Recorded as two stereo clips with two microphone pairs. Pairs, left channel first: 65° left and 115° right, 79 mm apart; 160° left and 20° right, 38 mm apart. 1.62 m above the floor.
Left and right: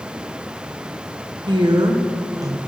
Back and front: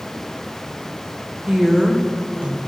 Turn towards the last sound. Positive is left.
turn(degrees=-75)